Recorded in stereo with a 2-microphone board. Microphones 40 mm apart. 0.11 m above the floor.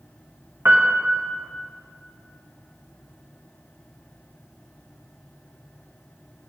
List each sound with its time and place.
0.7 s a piano: 80° right, 2.0 m